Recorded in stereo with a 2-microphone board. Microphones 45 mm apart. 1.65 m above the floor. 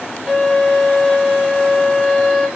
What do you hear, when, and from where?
0.3 s a violin: 10° right (ahead or behind), 2.5 m